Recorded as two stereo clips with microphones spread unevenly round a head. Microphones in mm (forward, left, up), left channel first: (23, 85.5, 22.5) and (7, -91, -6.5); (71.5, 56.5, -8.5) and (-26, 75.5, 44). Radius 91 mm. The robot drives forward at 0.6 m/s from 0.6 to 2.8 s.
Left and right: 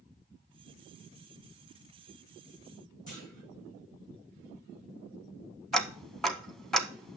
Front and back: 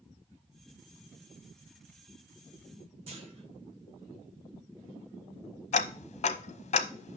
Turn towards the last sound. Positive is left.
turn(degrees=0)